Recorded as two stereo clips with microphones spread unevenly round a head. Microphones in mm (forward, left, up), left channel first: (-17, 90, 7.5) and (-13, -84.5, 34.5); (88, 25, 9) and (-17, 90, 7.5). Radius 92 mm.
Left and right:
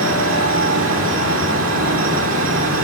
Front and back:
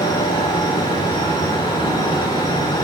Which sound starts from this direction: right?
A fan, at 0.0 s.